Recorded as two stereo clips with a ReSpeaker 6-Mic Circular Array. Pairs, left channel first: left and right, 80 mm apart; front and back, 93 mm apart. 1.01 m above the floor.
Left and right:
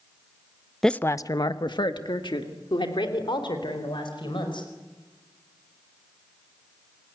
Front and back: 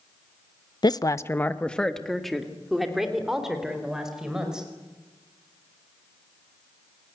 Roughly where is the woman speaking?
Ahead.